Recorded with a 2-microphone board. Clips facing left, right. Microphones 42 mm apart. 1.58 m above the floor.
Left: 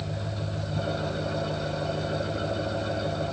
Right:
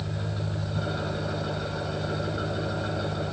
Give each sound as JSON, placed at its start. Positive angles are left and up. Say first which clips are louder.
{"t": 0.0, "sound": "an engine running", "louder": "even", "side_deg": -15, "distance_m": 4.0}